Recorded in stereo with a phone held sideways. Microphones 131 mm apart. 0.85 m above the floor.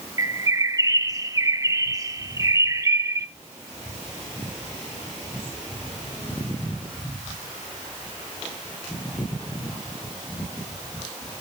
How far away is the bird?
About 0.7 m.